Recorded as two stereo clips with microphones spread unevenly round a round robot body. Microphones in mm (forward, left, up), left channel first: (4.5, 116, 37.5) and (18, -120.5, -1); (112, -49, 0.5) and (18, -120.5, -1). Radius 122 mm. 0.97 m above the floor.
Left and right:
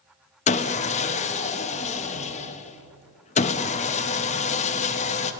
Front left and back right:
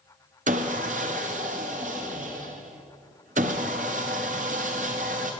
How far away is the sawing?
About 0.5 m.